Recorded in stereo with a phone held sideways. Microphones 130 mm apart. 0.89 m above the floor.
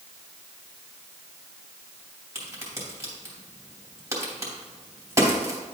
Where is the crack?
25° right (ahead or behind), 2.5 m.